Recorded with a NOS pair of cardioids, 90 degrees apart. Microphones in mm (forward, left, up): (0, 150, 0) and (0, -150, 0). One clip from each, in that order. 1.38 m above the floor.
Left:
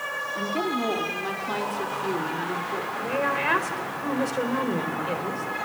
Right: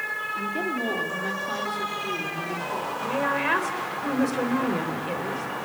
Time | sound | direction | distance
0.3 | a woman speaking | 15° left | 3.5 m
3.0 | a woman speaking | 10° left | 4.5 m